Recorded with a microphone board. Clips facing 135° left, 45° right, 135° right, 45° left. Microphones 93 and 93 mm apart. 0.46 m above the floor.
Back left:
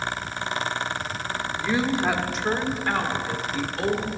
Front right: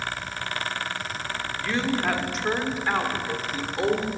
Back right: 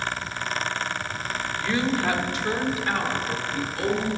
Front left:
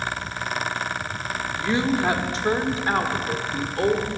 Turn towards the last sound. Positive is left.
turn(degrees=10)